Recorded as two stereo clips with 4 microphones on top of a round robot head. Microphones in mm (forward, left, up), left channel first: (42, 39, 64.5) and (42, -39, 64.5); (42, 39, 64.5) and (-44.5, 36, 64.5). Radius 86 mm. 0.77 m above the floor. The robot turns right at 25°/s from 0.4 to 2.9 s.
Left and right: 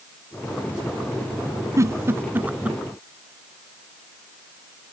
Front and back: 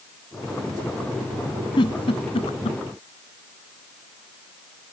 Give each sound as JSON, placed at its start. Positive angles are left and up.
{"t": 1.8, "sound": "a giggle", "azimuth_deg": -40}